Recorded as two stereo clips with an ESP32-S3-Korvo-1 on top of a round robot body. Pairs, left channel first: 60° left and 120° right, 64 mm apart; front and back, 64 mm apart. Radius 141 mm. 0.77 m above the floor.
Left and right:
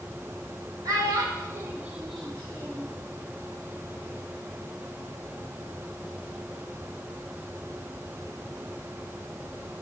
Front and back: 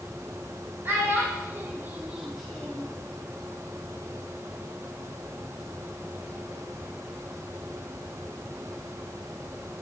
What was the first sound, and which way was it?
A child speaking, 130° right.